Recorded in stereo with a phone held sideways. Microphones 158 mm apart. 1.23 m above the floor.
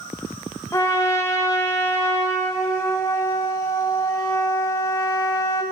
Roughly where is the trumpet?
Centre.